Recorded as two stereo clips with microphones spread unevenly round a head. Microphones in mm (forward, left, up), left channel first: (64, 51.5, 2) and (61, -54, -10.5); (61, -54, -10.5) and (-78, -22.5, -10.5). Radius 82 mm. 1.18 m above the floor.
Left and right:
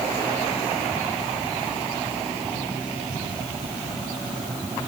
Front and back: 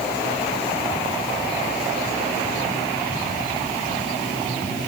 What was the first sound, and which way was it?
Only background noise.